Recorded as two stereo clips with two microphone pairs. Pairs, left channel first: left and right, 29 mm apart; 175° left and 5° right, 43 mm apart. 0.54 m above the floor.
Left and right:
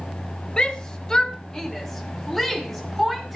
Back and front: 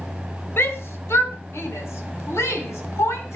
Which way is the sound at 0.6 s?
145° left.